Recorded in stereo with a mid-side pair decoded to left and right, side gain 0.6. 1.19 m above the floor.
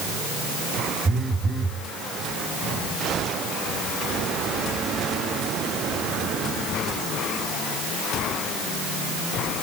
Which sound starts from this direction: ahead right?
A phone buzzing, at 1.1 s.